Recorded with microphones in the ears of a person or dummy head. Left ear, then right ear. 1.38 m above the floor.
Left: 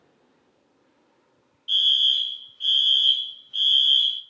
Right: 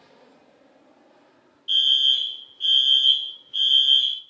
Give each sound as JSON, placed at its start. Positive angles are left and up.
{"t": 1.7, "sound": "a fire alarm", "side_deg": -5, "distance_m": 0.7}